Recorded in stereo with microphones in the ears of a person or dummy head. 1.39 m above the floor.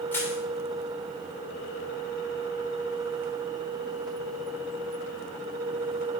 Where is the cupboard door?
I don't hear a cupboard door.